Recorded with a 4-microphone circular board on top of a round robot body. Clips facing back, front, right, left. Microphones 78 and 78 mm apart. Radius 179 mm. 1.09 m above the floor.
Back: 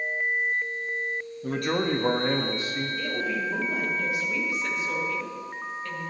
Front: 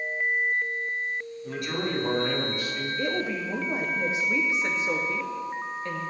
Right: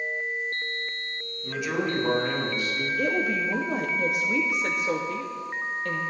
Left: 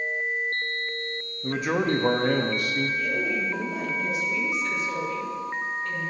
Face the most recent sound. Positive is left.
turn(degrees=-65)